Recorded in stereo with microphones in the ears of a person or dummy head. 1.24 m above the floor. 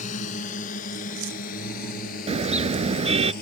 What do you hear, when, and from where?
0.0 s a drone: 45° left (ahead or behind); by 3.4 s 55° left (ahead or behind)
2.3 s a car horn: 35° right (ahead or behind)